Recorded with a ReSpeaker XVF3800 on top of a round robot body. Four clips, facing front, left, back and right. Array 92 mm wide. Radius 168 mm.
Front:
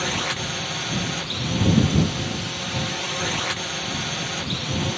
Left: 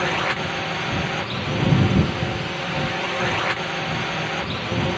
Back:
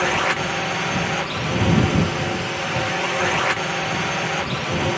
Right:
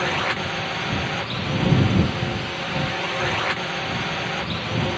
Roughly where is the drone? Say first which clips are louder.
Left 1 dB, back 7 dB; behind.